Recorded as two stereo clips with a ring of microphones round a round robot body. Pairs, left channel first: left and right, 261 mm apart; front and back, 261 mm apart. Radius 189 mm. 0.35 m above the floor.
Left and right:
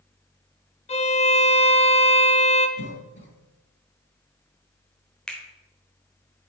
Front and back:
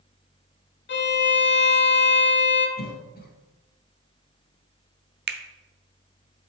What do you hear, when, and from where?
0.9 s a violin: 30° left, 1.0 m
2.8 s a cough: 50° left, 1.7 m
5.3 s a finger snap: 175° left, 0.7 m